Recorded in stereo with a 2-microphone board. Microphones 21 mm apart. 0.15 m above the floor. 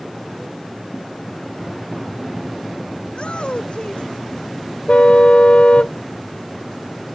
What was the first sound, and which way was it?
A shout, 65° left (ahead or behind).